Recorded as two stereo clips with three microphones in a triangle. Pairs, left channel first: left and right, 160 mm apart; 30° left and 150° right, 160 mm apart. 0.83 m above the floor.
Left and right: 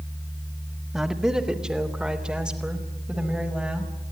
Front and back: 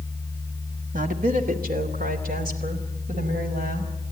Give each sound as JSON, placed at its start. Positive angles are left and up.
{"t": 0.9, "sound": "a woman speaking", "azimuth_deg": -175, "distance_m": 1.7}